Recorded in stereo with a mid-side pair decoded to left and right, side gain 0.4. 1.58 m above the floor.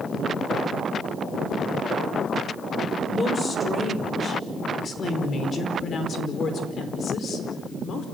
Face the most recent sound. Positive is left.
turn(degrees=65)